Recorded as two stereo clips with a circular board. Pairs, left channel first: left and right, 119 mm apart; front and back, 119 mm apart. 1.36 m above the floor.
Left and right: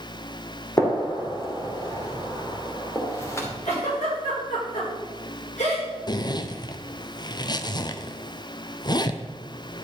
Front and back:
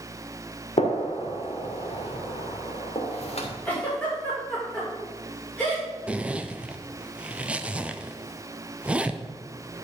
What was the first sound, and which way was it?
A gunshot, 25° left.